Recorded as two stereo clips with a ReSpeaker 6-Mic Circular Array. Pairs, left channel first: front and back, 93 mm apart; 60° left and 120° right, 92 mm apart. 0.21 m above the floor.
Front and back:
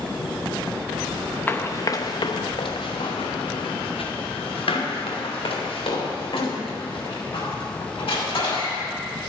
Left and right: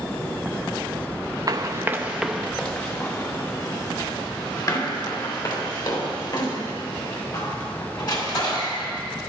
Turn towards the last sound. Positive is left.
turn(degrees=25)